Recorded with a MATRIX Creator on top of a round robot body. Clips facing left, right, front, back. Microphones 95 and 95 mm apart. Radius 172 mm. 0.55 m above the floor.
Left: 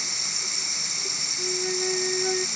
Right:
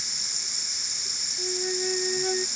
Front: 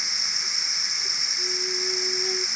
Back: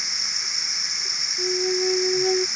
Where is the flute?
Straight behind.